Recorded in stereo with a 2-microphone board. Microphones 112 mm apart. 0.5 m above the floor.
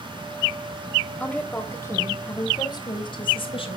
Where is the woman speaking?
10° left (ahead or behind), 3 m; by 3.8 s 55° left (ahead or behind), 3 m.